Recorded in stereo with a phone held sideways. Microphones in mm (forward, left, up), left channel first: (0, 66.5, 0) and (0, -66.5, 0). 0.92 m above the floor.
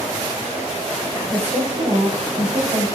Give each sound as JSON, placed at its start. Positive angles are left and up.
{"t": 1.3, "sound": "a woman speaking", "side_deg": -70, "distance_m": 3.5}